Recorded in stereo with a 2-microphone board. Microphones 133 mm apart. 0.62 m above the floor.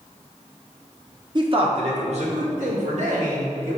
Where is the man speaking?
35° right (ahead or behind), 0.9 m; by 3.8 s 75° right (ahead or behind), 2.5 m.